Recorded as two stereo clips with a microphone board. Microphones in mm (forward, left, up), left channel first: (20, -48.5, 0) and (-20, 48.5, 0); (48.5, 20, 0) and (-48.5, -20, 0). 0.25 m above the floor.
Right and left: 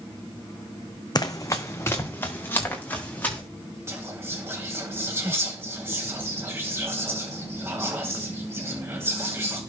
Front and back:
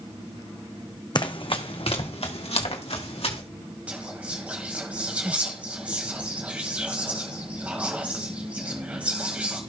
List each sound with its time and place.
1.1 s running footsteps: 20° right, 1.1 m; by 3.4 s 5° left, 4 m
3.9 s whispering: 140° left, 1.5 m